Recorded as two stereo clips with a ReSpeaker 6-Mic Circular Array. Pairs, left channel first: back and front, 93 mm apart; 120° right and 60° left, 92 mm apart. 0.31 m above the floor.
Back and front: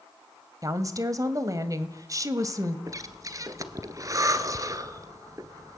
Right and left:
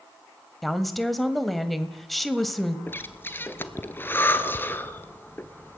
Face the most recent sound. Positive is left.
turn(degrees=-50)